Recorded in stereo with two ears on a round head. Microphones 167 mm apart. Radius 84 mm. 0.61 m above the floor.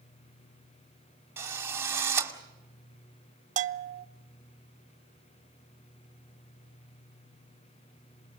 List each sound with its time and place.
1.4 s a drill: 15° right (ahead or behind), 2 m
3.6 s a bell: 45° right (ahead or behind), 0.7 m